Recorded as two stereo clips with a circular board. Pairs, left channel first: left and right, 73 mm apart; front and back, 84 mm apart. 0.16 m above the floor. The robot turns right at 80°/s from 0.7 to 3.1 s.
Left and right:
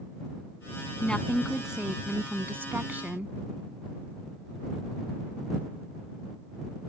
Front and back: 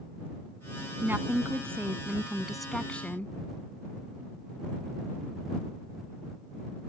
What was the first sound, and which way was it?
A woman speaking, 145° left.